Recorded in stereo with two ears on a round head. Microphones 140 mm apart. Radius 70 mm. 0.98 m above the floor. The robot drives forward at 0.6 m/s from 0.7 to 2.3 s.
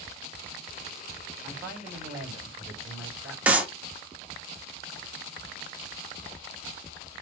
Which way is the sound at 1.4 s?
15° right (ahead or behind).